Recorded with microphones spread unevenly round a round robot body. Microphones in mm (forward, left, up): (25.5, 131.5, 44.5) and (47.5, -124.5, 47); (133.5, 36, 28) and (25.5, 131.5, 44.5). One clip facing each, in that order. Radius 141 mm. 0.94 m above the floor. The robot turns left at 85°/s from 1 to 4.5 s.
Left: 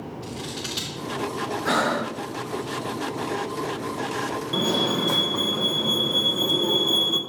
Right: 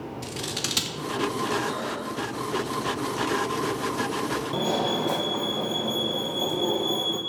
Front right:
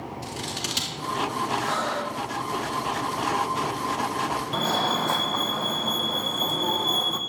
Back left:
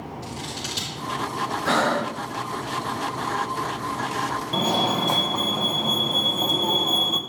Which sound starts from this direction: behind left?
Breathing, at 1.6 s.